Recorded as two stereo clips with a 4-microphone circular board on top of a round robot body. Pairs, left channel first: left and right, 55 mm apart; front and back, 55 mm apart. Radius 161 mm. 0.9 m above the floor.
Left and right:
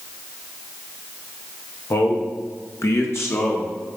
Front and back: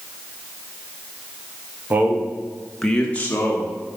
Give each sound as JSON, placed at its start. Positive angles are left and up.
{"t": 1.9, "sound": "a man speaking", "azimuth_deg": 125, "distance_m": 2.0}